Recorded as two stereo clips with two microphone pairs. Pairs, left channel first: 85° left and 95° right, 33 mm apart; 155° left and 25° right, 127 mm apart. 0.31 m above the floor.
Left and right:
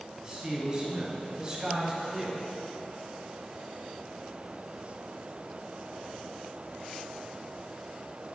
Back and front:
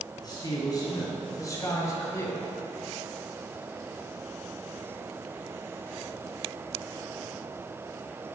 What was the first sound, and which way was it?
A man speaking, 150° right.